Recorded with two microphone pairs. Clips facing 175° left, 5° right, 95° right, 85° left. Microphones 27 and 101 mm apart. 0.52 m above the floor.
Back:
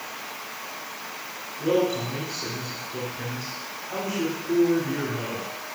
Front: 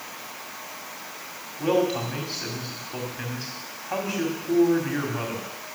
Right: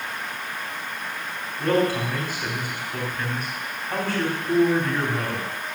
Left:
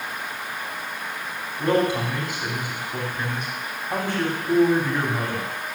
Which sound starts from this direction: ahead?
A man speaking, at 1.6 s.